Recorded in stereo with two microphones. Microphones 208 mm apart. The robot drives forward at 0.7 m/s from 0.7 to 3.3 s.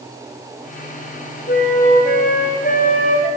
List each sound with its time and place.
1.5 s a flute: 45° left (ahead or behind), 6 m; by 3.3 s 40° left (ahead or behind), 7 m